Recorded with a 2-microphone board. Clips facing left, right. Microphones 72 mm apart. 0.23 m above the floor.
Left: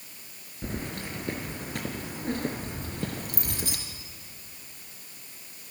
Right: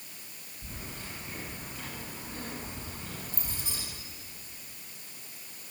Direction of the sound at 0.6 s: 75° left (ahead or behind).